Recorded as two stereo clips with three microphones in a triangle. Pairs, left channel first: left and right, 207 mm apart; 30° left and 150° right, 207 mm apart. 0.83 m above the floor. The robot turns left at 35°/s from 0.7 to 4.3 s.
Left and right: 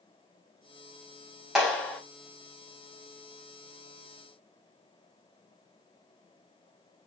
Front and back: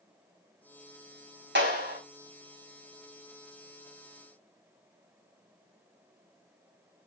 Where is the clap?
Straight behind, 4.5 m; by 2.0 s 165° left, 4.5 m.